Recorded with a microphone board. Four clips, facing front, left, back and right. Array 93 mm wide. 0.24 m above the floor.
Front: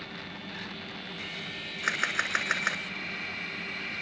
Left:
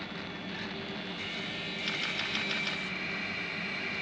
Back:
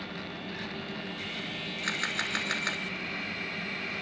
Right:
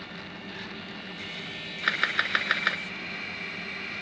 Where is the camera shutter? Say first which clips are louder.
Right 11 dB, front 4 dB; 65° right, 1.0 m.